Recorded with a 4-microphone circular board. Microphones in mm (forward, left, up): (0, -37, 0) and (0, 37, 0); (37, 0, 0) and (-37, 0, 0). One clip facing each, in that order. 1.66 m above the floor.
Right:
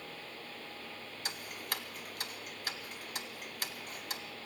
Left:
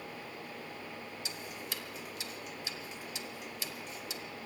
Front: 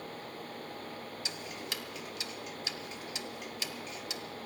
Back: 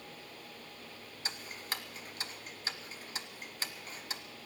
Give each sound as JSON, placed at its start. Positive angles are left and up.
{"t": 1.2, "sound": "ticking", "azimuth_deg": -130, "distance_m": 1.1}